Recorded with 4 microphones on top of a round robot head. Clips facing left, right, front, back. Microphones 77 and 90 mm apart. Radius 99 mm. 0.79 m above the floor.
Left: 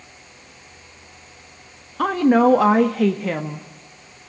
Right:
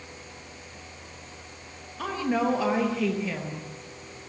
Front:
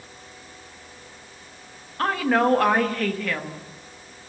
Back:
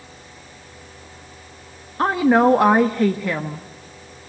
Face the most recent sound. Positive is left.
turn(degrees=110)